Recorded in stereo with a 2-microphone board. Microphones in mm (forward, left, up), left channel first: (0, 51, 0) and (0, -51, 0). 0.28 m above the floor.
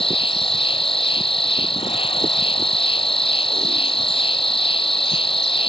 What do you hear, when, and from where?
0.0 s an insect: 65° left (ahead or behind)